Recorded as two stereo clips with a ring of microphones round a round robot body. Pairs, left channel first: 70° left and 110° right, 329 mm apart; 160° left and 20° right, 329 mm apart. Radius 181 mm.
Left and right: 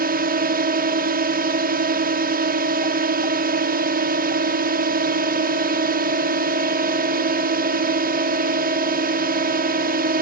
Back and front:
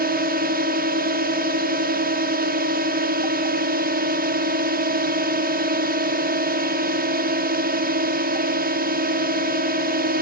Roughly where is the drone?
Ahead right.